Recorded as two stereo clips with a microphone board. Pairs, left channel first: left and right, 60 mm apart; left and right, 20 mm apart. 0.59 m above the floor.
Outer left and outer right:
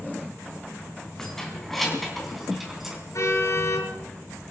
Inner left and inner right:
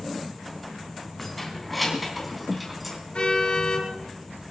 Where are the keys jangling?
10° left (ahead or behind), 3.5 m; by 3.0 s 5° right (ahead or behind), 4 m.